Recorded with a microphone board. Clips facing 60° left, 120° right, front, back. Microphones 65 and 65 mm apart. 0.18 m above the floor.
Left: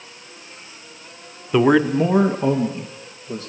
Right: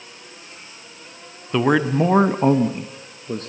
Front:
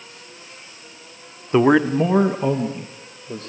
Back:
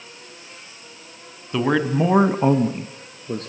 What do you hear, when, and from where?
1.5 s a man speaking: 15° right, 1.1 m; by 3.5 s 160° right, 2.5 m